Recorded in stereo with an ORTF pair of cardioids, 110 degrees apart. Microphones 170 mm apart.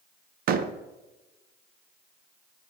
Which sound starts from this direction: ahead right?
A door slam, at 0.5 s.